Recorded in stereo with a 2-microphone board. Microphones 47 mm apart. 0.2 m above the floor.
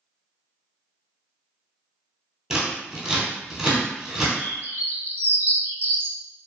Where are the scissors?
10° right (ahead or behind), 0.9 m.